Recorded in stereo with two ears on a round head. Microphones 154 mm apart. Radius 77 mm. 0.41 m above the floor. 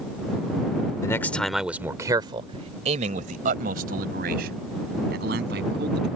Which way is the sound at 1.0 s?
20° left (ahead or behind).